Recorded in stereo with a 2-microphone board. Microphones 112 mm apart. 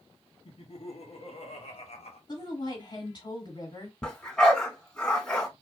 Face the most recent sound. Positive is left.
turn(degrees=10)  # may be behind; listen again after turning